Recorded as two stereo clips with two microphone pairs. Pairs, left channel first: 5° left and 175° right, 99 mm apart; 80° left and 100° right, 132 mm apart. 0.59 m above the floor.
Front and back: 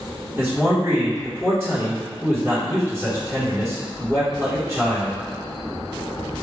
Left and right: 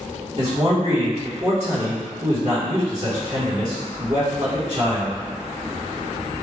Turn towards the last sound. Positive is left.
turn(degrees=-105)